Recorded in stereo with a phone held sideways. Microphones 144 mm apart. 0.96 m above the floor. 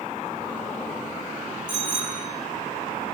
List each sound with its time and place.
1.7 s a bicycle bell: 85° left, 9 m